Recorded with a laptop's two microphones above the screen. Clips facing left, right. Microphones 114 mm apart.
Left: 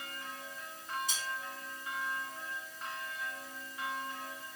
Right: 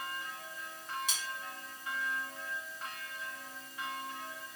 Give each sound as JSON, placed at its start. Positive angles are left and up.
{"t": 1.1, "sound": "cutlery clinking", "side_deg": -85, "distance_m": 2.5}